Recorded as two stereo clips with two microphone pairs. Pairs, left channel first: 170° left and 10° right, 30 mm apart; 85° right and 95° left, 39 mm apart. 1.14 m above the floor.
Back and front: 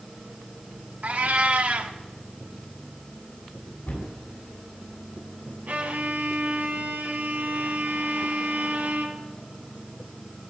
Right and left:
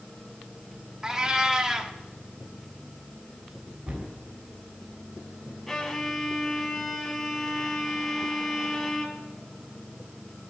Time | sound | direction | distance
1.0 | a cat meowing | 20° left | 1.1 m
3.9 | a cupboard door | 140° left | 7 m
5.7 | a violin | 5° right | 2 m